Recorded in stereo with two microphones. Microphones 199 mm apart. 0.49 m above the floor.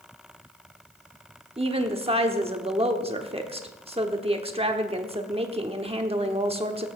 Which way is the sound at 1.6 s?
30° right (ahead or behind).